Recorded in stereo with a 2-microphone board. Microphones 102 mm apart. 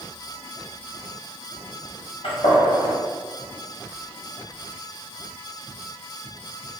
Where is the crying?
No crying in this recording.